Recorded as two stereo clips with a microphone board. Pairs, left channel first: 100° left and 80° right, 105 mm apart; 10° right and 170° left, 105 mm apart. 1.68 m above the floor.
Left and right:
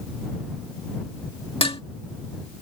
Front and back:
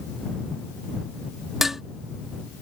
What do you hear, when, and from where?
1.6 s dishes clattering: 85° left